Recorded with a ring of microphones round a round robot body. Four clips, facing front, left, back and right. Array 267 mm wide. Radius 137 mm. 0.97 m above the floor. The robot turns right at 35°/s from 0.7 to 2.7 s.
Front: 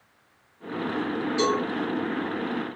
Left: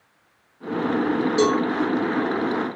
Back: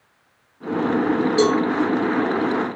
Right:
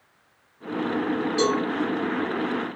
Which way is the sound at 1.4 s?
145° left.